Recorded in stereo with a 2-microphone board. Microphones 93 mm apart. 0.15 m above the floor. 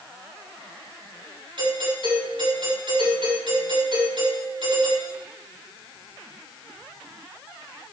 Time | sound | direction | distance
1.6 | a doorbell | 65° right (ahead or behind) | 6 m